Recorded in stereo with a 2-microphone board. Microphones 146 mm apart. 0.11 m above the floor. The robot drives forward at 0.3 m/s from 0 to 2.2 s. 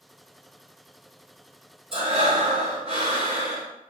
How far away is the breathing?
About 0.8 m.